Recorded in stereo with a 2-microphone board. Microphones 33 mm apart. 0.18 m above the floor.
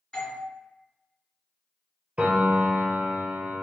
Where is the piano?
45° right (ahead or behind), 0.7 m.